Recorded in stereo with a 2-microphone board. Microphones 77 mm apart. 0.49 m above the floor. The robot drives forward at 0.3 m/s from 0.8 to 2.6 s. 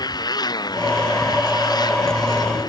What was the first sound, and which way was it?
A motorcycle, 60° left (ahead or behind).